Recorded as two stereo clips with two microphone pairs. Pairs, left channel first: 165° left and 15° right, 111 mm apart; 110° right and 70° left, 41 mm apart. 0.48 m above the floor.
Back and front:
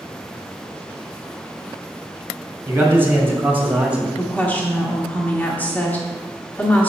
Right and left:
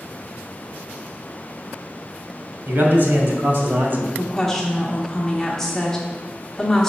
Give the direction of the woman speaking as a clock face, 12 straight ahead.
6 o'clock.